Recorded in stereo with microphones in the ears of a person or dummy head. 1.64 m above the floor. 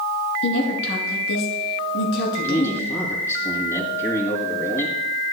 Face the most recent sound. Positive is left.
turn(degrees=15)  # may be behind; listen again after turning